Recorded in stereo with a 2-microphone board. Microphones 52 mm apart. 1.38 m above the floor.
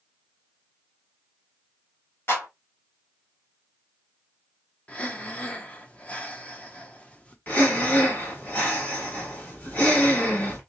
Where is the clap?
50° left (ahead or behind), 3 m.